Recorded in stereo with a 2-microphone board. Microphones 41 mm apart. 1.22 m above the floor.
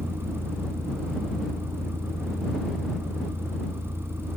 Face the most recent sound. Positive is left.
turn(degrees=-85)